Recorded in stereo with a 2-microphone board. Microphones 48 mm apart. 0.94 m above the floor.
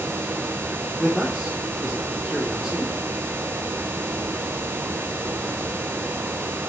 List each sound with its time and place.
1.0 s a man speaking: centre (ahead or behind), 3.5 m